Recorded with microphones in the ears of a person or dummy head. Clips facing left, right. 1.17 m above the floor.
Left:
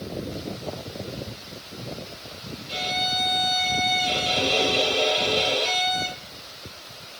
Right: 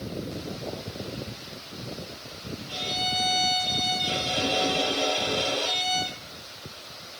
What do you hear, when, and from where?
2.7 s a violin: 30° left (ahead or behind), 10 m